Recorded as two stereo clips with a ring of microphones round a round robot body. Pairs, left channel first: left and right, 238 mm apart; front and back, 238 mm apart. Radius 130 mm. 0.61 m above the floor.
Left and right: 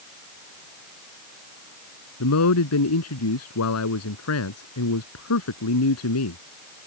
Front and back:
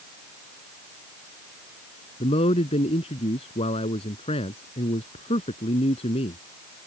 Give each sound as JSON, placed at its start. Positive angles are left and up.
{"t": 2.2, "sound": "a man speaking", "azimuth_deg": 70}